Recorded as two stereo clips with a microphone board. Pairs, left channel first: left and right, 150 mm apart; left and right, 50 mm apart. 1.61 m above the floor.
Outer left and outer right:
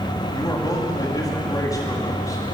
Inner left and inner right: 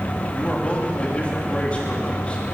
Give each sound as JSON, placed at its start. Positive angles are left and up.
{"t": 0.3, "sound": "a man speaking", "side_deg": 25, "distance_m": 4.0}